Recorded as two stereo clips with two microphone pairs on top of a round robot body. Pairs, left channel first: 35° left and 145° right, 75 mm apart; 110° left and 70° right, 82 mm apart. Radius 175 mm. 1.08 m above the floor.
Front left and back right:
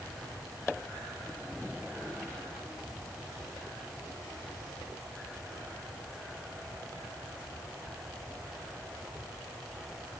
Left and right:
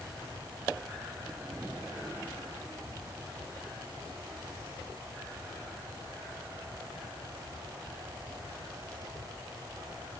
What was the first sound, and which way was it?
Only background noise.